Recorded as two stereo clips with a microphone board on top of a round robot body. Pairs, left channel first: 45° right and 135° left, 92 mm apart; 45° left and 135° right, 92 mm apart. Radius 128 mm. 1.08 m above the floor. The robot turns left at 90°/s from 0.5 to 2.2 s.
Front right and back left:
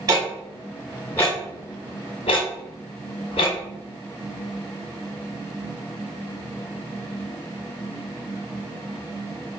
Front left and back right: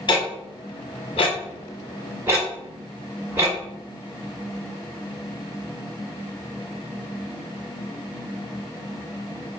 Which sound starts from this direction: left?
Ticking, at 0.1 s.